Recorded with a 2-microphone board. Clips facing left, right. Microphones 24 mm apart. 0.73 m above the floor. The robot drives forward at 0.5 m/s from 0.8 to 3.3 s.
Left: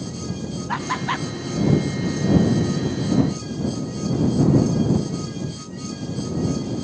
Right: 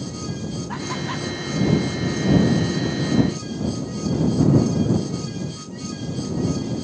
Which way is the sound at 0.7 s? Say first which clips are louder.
Left 6 dB; 30° left (ahead or behind).